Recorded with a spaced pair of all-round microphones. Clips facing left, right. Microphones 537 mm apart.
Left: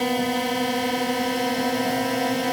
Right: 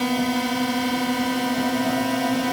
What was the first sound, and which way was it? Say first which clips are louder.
A drone: right 1 dB; 30° right (ahead or behind).